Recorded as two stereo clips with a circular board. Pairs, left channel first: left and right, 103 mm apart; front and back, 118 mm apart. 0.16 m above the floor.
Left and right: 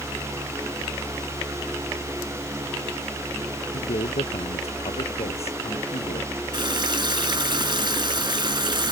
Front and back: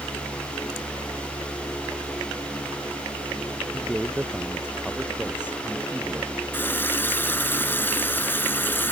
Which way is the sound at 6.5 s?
65° right.